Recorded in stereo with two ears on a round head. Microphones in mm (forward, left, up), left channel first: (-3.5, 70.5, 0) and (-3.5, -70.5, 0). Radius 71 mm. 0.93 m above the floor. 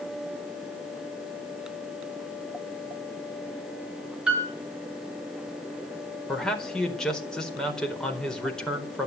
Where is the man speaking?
5° left (ahead or behind), 4.5 m.